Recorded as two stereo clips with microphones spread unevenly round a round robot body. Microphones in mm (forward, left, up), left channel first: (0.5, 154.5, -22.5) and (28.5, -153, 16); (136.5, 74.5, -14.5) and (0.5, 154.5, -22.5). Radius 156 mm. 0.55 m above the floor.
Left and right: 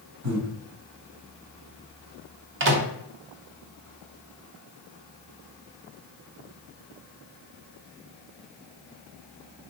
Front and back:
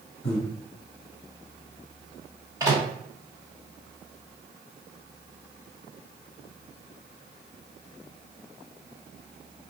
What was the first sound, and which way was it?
Breathing, 50° right.